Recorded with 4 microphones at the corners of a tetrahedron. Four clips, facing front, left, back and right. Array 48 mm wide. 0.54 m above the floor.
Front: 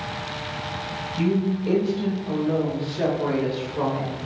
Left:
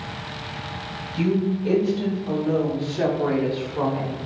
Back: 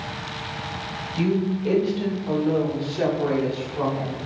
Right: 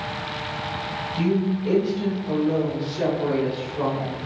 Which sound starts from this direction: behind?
A woman speaking, at 1.2 s.